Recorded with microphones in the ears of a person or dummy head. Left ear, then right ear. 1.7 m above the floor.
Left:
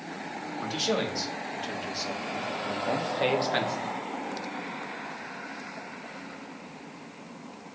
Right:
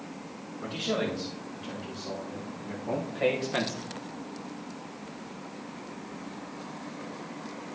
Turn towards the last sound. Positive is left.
turn(degrees=10)  # may be behind; listen again after turning